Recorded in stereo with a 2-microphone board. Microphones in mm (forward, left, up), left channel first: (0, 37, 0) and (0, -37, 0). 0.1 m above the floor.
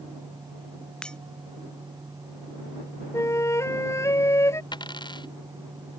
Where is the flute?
40° left (ahead or behind).